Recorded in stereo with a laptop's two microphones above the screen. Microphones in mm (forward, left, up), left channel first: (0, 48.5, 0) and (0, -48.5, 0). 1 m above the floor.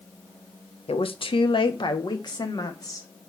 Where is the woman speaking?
70° left (ahead or behind), 0.9 m; by 3.1 s 40° left (ahead or behind), 1.8 m.